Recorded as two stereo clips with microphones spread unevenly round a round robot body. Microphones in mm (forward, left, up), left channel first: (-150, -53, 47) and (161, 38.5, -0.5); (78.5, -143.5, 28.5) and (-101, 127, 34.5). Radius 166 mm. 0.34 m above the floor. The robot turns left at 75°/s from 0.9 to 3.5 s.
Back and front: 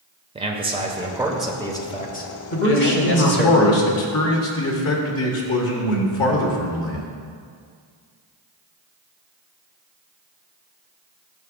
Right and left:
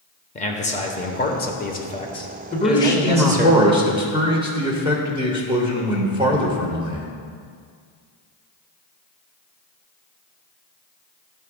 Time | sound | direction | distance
0.3 | a man speaking | 15° right | 0.9 m
2.5 | a man speaking | 100° right | 1.2 m